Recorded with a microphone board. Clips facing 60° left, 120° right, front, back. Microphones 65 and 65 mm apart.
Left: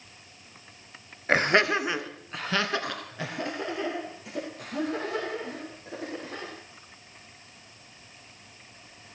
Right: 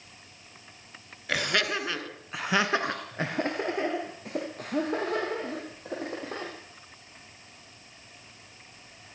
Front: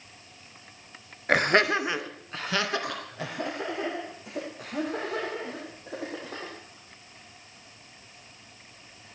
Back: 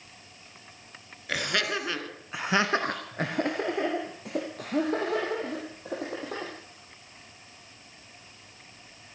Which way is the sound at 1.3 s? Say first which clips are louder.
Left 6 dB, front 7 dB; 20° left.